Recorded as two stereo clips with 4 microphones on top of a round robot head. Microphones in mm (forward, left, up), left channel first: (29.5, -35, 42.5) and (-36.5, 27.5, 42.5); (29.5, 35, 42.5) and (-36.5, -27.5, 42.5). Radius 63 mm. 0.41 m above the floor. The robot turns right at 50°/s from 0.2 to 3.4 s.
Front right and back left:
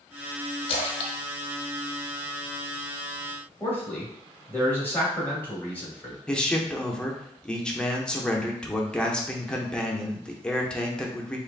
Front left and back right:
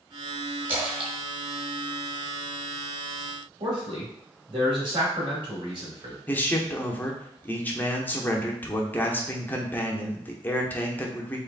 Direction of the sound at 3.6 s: 115° right.